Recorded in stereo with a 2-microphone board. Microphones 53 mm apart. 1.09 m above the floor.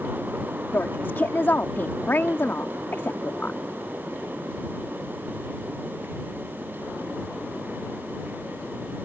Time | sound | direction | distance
0.7 | a woman speaking | 45° left (ahead or behind) | ?